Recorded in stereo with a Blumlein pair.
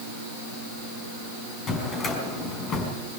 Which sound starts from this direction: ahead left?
A drawer, at 1.7 s.